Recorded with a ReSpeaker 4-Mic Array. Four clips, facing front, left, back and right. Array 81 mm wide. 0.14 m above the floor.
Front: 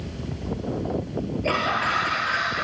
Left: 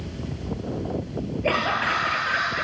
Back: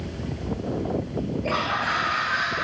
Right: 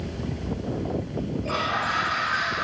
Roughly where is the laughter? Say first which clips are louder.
Left 4 dB, front 3 dB; left.